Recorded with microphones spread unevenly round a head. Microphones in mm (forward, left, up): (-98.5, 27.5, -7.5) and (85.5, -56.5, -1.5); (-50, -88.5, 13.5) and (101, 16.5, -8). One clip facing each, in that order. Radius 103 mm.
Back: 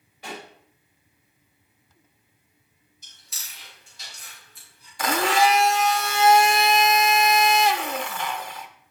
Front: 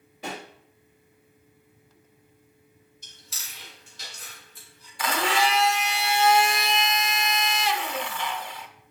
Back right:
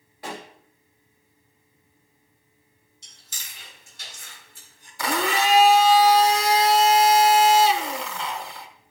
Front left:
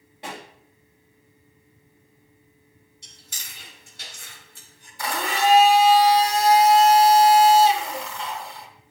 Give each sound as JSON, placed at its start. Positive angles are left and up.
{"t": 0.2, "sound": "a pop", "azimuth_deg": -35, "distance_m": 3.0}
{"t": 3.0, "sound": "chewing", "azimuth_deg": 0, "distance_m": 4.0}
{"t": 5.0, "sound": "a blender", "azimuth_deg": -155, "distance_m": 0.8}